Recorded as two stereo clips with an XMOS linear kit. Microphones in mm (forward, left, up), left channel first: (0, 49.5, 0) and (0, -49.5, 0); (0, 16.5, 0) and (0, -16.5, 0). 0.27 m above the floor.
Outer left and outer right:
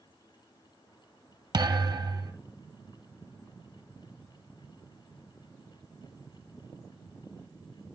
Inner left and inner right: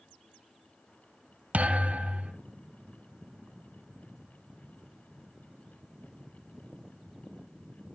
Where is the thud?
45° right (ahead or behind), 1.1 m.